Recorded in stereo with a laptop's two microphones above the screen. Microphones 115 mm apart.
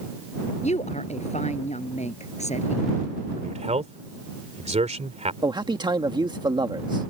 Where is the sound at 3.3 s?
75° right (ahead or behind).